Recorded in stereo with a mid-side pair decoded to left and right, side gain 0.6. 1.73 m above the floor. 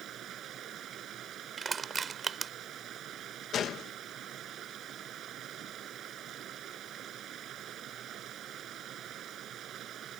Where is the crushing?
25° right.